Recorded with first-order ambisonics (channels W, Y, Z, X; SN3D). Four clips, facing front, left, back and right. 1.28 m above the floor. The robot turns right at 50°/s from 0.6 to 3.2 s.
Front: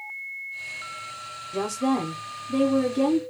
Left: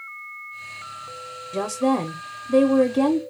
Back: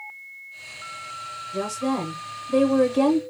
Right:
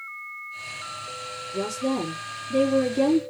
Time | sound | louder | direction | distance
1.5 | a woman speaking | left 5 dB, front 1 dB | 60° left | 0.6 m